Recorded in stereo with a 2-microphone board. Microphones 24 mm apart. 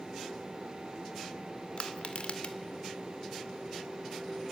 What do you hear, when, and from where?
1.8 s crushing: 55° left (ahead or behind), 2 m